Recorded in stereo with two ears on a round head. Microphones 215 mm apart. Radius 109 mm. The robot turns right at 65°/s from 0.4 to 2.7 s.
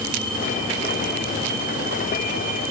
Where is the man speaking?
I don't hear a man speaking.